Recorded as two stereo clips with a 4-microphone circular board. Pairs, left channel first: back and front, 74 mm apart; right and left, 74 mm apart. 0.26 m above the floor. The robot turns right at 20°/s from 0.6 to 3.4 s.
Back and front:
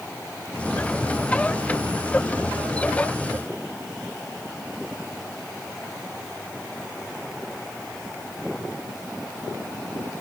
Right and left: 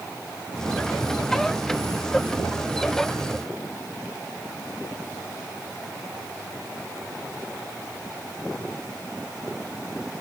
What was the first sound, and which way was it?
Only background noise.